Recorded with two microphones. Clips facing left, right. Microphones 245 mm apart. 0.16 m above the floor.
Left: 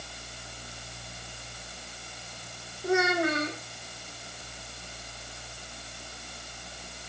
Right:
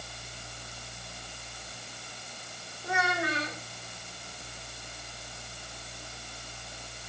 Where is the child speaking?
45° left (ahead or behind), 4.5 m.